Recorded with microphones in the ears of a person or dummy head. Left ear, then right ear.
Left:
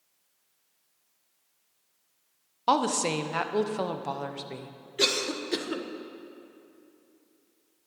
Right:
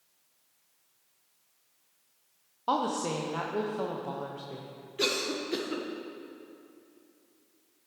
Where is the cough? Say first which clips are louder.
Left 3 dB; 25° left (ahead or behind), 0.9 m.